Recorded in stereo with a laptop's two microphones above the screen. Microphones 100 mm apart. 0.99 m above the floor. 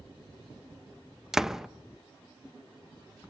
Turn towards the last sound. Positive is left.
turn(degrees=-5)  # may be behind; listen again after turning